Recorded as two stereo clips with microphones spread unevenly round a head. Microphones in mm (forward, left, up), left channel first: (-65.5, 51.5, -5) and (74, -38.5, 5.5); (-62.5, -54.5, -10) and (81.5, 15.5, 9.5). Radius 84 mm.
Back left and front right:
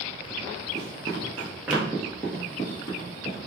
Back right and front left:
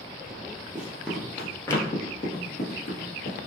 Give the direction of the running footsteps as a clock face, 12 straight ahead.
1 o'clock.